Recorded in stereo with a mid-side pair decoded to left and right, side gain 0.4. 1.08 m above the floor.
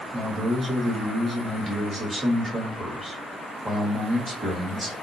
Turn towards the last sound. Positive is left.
turn(degrees=-15)